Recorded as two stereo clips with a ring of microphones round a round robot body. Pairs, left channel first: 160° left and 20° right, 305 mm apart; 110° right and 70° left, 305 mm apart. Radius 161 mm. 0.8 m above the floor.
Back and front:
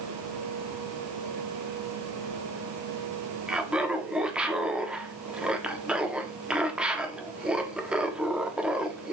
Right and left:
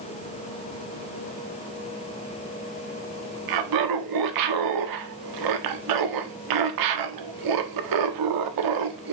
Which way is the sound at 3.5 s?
65° left.